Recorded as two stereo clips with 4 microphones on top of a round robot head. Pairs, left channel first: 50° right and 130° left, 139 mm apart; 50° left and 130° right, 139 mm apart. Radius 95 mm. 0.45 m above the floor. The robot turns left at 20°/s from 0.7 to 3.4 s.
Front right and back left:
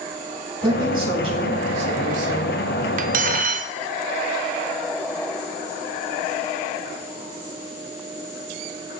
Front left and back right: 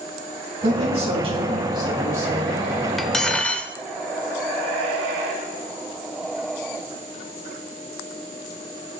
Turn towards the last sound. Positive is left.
turn(degrees=130)